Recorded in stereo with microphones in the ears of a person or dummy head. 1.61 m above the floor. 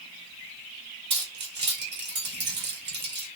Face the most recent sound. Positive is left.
turn(degrees=-25)  # may be behind; listen again after turning